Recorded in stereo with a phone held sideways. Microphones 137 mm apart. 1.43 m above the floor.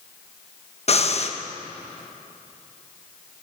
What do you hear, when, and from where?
0.9 s breathing: 50° left (ahead or behind), 1.1 m